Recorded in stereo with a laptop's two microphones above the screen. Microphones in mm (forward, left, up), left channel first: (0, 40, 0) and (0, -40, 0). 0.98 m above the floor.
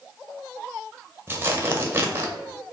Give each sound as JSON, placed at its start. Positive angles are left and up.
{"t": 1.3, "sound": "tearing paper", "side_deg": -25, "distance_m": 0.8}